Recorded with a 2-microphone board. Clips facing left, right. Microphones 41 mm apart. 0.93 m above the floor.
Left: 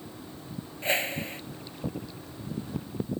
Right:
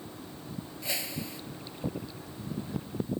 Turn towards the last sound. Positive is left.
turn(degrees=35)  # may be behind; listen again after turning